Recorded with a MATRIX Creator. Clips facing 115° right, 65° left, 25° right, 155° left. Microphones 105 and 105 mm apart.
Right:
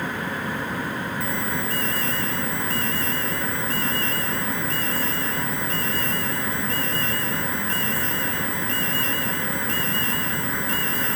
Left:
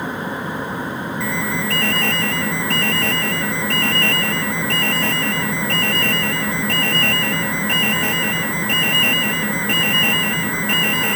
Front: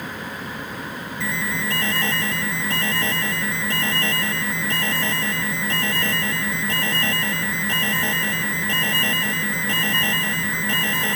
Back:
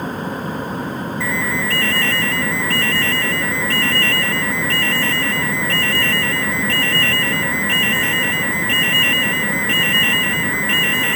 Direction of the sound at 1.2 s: 50° left.